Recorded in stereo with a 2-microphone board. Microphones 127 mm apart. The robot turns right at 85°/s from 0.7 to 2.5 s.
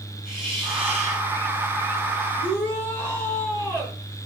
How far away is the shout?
About 7.5 m.